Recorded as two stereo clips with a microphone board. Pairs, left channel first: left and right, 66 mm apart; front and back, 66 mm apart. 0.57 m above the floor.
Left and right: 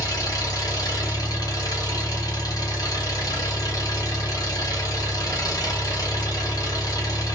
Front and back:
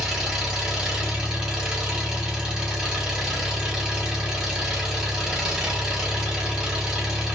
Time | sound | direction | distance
0.0 | an engine running | 100° left | 1.3 m